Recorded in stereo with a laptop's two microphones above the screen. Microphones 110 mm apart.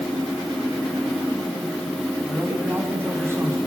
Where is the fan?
5° left (ahead or behind), 2 m.